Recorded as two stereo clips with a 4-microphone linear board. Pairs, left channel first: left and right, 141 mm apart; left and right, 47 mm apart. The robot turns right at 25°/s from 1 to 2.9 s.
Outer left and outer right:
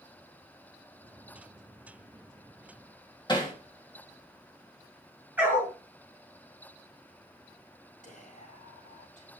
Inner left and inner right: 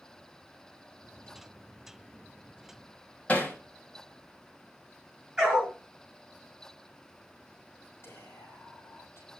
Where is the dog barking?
10° right (ahead or behind), 6.5 m.